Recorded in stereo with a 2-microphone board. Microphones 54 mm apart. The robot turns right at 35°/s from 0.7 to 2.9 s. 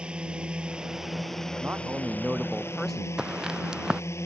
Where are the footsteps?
10° right (ahead or behind).